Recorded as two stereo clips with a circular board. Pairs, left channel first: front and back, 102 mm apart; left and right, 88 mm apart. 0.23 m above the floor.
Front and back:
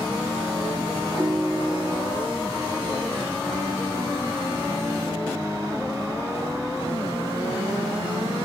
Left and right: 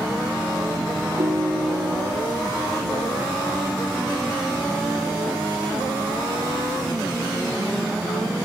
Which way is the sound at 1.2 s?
90° right.